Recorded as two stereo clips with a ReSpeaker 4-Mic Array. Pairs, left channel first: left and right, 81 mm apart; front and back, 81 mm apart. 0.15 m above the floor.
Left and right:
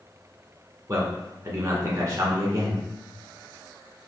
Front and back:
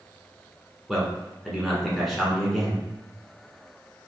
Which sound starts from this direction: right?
A man speaking, at 0.9 s.